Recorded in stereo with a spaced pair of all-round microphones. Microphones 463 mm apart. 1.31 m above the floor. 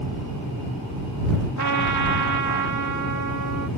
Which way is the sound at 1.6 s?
40° left (ahead or behind).